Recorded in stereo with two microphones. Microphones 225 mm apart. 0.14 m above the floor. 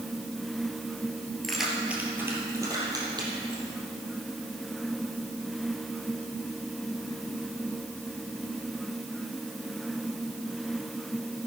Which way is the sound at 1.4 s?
Centre (ahead or behind).